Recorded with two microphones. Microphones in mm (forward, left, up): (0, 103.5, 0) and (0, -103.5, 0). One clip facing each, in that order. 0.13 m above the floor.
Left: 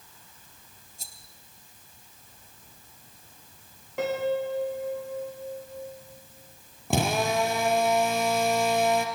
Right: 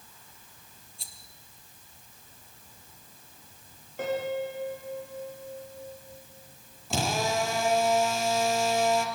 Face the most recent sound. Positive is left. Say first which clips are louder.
# left 3 dB
turn(degrees=60)  # may be behind; listen again after turning